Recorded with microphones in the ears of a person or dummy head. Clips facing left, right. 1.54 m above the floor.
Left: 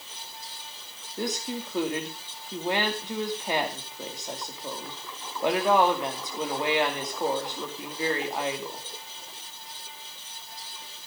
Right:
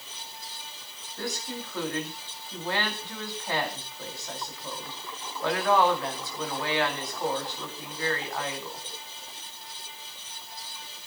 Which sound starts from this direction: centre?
A woman speaking, at 1.2 s.